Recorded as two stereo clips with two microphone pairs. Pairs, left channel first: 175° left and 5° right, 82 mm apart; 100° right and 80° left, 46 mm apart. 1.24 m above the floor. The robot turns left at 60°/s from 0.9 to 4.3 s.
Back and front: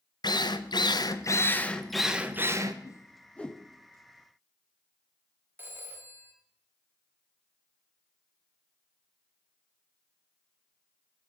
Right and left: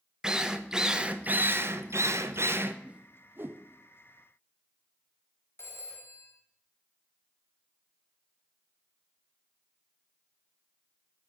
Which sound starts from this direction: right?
A phone ringing, at 5.6 s.